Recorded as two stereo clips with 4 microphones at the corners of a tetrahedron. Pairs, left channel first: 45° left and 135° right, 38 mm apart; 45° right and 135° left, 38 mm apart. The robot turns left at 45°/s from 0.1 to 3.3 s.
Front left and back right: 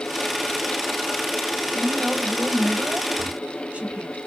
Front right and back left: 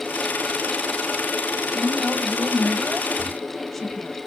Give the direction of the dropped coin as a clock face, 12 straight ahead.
I don't hear a dropped coin.